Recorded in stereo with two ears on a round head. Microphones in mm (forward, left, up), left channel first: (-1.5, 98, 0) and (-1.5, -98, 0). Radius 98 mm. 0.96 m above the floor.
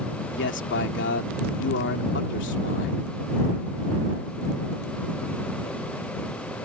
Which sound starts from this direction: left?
A man speaking, at 0.3 s.